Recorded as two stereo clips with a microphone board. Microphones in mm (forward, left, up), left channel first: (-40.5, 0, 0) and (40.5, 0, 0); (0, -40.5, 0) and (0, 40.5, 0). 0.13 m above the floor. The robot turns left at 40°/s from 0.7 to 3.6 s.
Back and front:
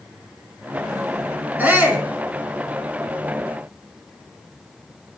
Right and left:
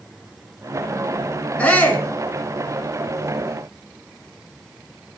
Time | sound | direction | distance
1.6 | a shout | 40° right | 1.1 m